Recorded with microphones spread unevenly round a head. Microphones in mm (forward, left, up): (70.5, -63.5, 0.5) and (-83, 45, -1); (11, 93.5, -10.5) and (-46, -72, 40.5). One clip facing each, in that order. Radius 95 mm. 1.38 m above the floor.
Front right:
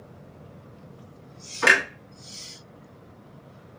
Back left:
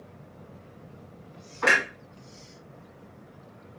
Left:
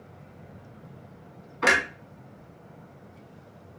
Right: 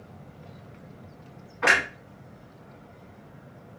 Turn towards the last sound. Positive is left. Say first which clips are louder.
# front right 2 dB, left 1 dB
turn(degrees=20)